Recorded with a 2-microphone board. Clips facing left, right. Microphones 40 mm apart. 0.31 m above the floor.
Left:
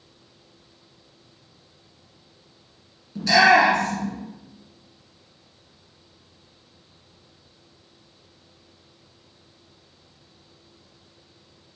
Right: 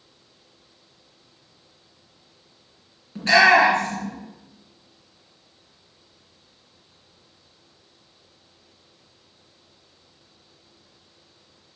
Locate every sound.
3.1 s a shout: 35° right (ahead or behind), 3 m